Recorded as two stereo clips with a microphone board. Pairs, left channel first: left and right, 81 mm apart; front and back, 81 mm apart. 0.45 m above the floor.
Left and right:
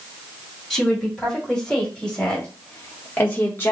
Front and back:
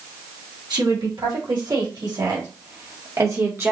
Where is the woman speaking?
175° left, 3 m; by 3.7 s 135° left, 1.1 m.